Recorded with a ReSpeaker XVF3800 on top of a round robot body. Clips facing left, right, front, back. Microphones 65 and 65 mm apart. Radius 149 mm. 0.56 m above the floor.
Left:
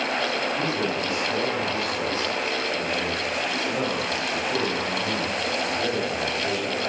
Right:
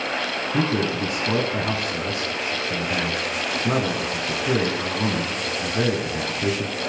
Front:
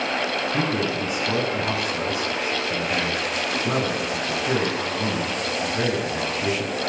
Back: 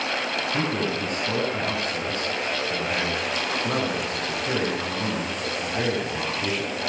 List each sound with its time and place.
0.5 s a man speaking: 85° right, 6 m